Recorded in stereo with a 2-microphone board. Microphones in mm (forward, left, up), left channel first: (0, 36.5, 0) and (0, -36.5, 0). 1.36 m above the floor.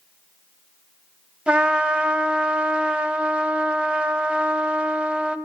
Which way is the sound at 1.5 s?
15° right (ahead or behind).